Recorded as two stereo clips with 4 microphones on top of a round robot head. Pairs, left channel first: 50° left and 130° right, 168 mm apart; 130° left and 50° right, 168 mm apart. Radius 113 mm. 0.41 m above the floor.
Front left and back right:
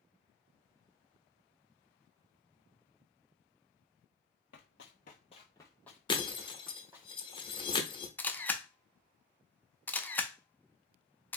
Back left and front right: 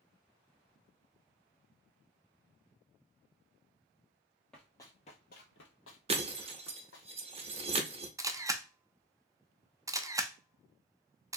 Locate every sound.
4.5 s running footsteps: 45° left, 0.6 m; by 7.1 s 150° left, 1.2 m
6.1 s breaking glass: 5° right, 0.8 m
8.2 s a camera shutter: 15° right, 0.5 m